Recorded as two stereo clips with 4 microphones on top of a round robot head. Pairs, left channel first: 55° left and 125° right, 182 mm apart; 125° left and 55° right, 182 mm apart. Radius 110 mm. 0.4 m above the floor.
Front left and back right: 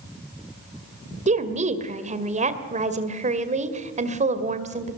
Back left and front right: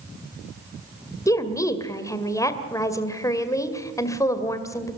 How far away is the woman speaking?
About 2 m.